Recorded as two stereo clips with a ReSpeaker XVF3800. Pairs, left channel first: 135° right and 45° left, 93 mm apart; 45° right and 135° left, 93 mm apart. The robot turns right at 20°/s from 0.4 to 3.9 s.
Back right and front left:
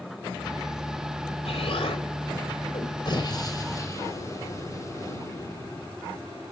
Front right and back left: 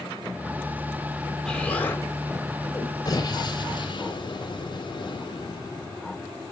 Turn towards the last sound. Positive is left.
turn(degrees=-80)